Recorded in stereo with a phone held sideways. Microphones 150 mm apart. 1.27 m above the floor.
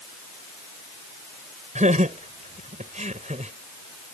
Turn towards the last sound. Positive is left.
turn(degrees=-55)  # may be behind; listen again after turning